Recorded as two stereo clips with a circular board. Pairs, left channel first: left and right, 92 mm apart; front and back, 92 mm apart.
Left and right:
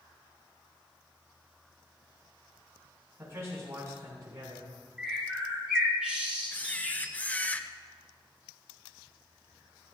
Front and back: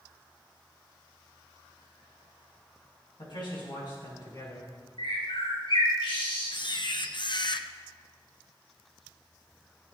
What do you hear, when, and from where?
3.2 s a man speaking: 30° right, 7 m; by 4.7 s 45° right, 7 m
5.0 s a bird: 10° right, 5 m
6.5 s a camera shutter: 20° left, 0.6 m